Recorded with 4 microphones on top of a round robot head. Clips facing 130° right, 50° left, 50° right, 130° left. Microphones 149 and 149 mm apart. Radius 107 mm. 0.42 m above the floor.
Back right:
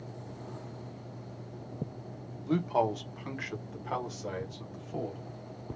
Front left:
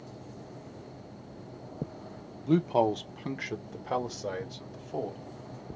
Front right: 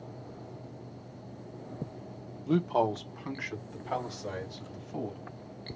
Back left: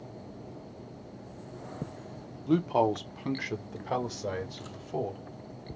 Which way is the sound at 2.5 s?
25° left.